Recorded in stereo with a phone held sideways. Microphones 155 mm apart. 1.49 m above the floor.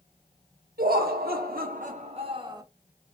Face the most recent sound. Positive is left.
turn(degrees=-25)  # may be behind; listen again after turning